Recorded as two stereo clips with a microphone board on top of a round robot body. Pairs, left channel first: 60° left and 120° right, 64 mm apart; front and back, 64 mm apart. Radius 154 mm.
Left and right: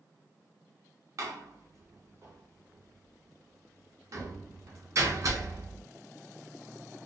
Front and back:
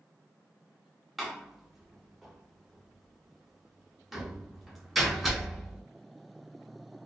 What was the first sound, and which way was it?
A door slam, 90° right.